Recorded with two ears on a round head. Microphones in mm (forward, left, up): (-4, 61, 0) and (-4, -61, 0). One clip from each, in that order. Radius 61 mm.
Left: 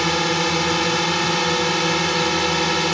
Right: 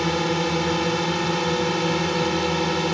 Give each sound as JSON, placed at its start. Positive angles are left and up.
{"t": 0.0, "sound": "a drone", "side_deg": 45}